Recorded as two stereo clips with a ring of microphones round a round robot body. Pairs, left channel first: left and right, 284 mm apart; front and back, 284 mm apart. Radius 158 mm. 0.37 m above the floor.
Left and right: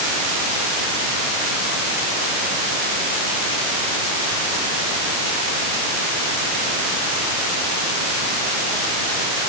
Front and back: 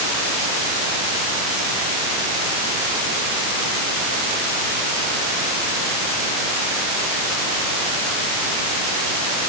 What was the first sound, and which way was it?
Only background noise.